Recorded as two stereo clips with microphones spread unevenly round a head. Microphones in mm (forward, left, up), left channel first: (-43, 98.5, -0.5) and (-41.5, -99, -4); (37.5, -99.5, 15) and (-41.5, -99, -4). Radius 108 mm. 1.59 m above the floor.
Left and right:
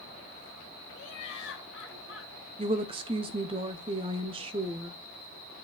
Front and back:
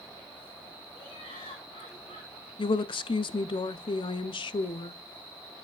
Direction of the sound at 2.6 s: 20° right.